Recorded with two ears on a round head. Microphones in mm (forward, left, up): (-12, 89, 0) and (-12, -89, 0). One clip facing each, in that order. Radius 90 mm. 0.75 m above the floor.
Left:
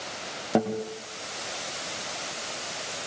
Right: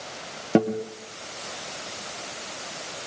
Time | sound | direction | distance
0.6 | a guitar | 25° right (ahead or behind) | 2.5 m